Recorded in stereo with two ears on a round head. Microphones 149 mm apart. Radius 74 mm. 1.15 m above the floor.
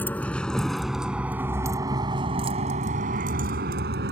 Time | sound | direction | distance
0.0 | a vehicle | 10° left (ahead or behind) | ?